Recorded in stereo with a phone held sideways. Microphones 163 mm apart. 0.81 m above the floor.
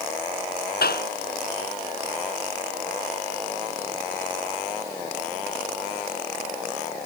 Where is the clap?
85° left.